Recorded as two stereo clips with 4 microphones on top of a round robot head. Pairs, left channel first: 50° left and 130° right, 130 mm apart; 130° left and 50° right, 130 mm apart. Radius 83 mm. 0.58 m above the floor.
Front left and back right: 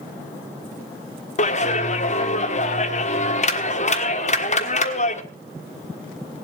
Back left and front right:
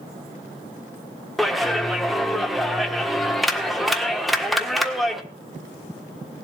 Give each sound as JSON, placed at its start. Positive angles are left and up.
{"t": 1.4, "sound": "a clap", "azimuth_deg": 40, "distance_m": 1.4}